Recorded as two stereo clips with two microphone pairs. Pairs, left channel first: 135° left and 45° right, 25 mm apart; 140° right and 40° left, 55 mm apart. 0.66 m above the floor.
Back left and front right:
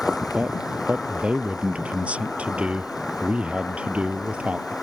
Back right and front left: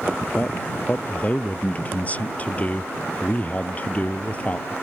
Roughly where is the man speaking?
Right.